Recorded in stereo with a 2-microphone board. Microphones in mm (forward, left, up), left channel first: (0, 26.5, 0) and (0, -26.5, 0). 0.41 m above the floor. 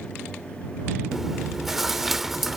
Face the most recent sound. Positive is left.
turn(degrees=-5)  # may be behind; listen again after turning